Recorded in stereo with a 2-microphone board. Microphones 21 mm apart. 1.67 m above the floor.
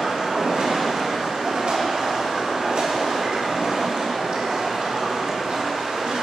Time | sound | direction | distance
0.0 | running water | 80° right | 3 m